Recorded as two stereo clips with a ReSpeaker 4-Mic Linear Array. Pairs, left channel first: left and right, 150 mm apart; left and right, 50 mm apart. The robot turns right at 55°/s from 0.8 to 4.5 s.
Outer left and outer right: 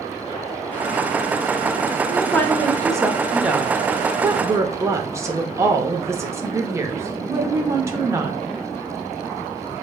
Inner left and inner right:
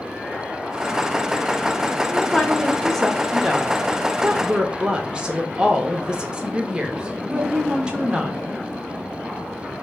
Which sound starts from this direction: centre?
A woman speaking, at 2.1 s.